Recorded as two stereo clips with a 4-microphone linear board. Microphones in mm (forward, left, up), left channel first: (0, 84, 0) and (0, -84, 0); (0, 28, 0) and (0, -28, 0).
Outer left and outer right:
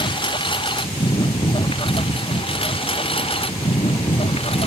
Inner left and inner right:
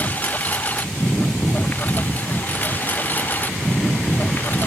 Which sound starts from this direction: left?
A lawn mower, at 0.0 s.